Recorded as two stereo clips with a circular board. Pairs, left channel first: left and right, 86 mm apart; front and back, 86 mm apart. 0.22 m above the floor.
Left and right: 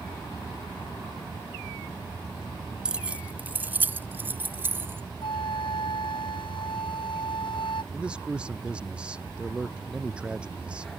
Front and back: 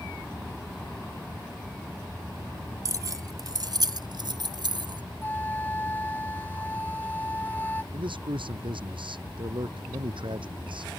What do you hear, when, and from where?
2.9 s keys jangling: 165° right; by 5.0 s 155° right
5.2 s a flute: 70° left
7.9 s a man speaking: 170° right